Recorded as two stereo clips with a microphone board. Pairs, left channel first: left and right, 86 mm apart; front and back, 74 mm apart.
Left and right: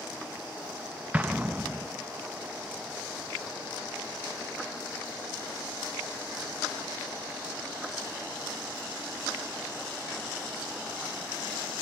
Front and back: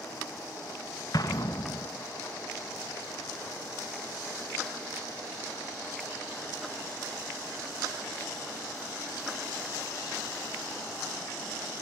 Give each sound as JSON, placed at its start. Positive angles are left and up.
{"t": 1.1, "sound": "an explosion", "azimuth_deg": -20, "distance_m": 0.9}